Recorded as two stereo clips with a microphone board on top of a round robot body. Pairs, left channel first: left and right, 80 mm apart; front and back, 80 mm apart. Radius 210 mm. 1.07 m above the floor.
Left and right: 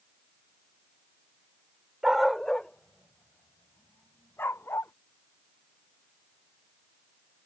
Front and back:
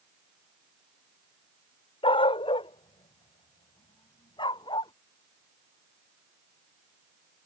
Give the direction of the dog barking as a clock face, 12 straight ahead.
12 o'clock.